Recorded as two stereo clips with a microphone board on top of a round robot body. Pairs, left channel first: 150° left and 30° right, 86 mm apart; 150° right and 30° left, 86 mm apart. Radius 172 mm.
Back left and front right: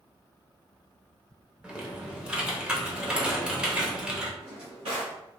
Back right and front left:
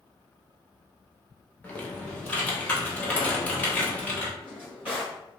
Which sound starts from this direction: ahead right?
A drawer, at 4.4 s.